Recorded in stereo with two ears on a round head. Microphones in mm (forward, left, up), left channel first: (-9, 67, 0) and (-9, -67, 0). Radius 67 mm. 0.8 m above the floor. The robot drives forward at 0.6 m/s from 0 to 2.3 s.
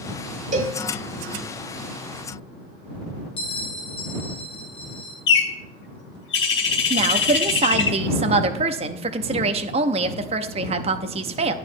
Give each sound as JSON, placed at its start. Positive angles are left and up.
{"t": 0.5, "sound": "a cowbell", "side_deg": -55, "distance_m": 1.6}
{"t": 3.4, "sound": "a bell", "side_deg": 45, "distance_m": 2.5}
{"t": 5.3, "sound": "a bird", "side_deg": 80, "distance_m": 1.4}
{"t": 6.9, "sound": "a woman speaking", "side_deg": -45, "distance_m": 0.8}